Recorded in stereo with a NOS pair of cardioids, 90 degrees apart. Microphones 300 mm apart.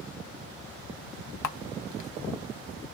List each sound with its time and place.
1.4 s a camera shutter: 65° left, 0.7 m